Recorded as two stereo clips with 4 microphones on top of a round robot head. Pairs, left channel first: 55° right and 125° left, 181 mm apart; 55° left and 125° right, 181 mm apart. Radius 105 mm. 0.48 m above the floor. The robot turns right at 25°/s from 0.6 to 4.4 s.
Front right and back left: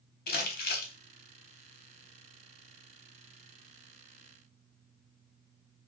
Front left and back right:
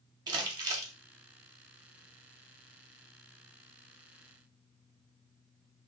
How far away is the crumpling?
About 0.9 m.